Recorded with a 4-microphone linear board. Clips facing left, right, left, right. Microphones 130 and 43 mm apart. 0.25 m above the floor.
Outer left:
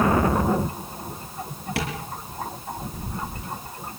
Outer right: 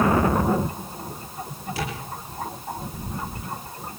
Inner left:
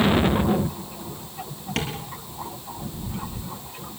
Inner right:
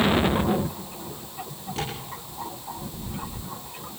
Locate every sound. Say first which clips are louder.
1.8 s tapping: outer left 2 dB, inner left 3 dB; 70° left (ahead or behind), 7.5 m